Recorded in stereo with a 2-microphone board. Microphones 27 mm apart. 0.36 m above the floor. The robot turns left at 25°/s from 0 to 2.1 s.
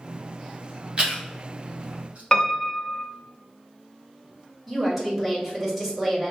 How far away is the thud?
I don't hear a thud.